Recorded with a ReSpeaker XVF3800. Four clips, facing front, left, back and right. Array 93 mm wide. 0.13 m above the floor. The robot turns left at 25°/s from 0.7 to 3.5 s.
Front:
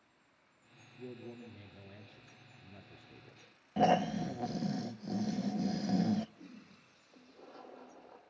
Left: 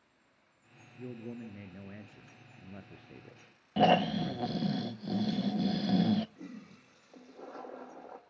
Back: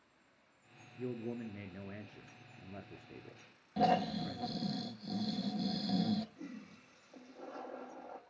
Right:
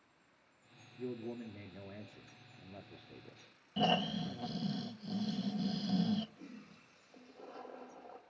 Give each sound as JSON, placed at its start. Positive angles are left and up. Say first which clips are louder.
{"t": 1.0, "sound": "a man speaking", "louder": "right 1 dB, back 6 dB", "azimuth_deg": 170, "distance_m": 1.7}
{"t": 3.8, "sound": "snoring", "louder": "left 8 dB, front 2 dB", "azimuth_deg": 70, "distance_m": 0.5}
{"t": 6.4, "sound": "a toilet flushing", "louder": "left 5 dB, back 5 dB", "azimuth_deg": 100, "distance_m": 4.0}